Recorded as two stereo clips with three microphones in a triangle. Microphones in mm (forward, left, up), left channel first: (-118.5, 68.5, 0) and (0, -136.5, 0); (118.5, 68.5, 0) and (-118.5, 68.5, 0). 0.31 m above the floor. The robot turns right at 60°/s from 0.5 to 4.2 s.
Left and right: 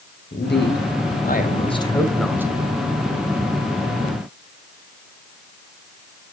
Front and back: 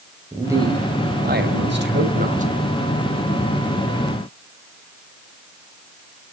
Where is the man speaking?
105° left, 2.0 m; by 2.5 s 130° right, 2.0 m.